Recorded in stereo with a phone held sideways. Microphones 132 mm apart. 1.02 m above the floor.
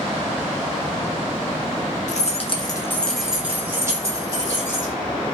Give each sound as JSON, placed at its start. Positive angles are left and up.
{"t": 2.1, "sound": "keys jangling", "side_deg": 65, "distance_m": 0.6}